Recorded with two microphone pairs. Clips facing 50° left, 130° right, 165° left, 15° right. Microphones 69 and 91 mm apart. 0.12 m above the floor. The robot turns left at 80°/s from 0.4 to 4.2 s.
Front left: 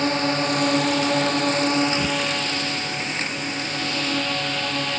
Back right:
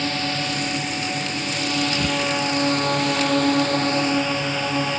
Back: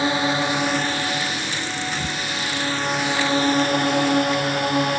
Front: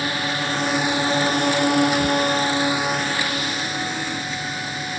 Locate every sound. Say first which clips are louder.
0.0 s a drone: front left 4 dB, back 4 dB; 100° left; by 5.0 s 150° left